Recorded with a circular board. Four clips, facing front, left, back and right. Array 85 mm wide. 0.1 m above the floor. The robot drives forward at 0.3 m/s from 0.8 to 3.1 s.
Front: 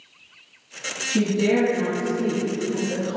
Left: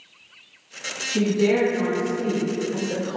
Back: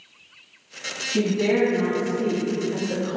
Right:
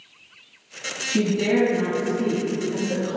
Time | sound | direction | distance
1.1 | a woman speaking | 105° right | 1.9 m